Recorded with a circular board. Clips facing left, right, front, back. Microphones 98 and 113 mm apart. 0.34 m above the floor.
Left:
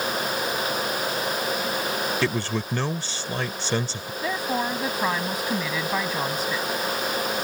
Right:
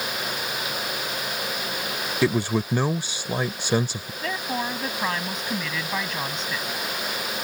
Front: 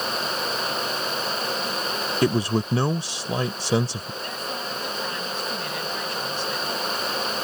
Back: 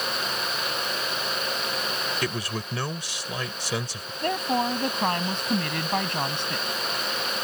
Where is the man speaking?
25° right.